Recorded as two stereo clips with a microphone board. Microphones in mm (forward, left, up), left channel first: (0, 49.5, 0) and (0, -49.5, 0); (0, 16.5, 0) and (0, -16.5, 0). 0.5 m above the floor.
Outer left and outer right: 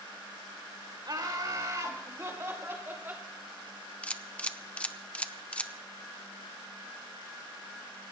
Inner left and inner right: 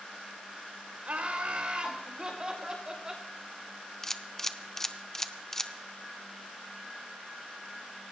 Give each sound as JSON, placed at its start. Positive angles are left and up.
{"t": 1.1, "sound": "laughter", "side_deg": -50, "distance_m": 2.0}
{"t": 4.0, "sound": "a camera shutter", "side_deg": 15, "distance_m": 0.6}